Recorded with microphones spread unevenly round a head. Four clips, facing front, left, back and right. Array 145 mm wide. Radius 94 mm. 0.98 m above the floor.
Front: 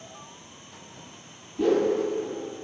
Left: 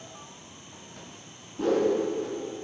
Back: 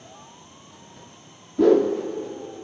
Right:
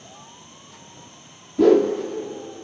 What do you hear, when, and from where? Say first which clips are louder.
0.0 s an insect: right 1 dB, even; 110° right, 3 m
1.6 s a whoosh: right 9 dB, back 5 dB; 125° right, 0.8 m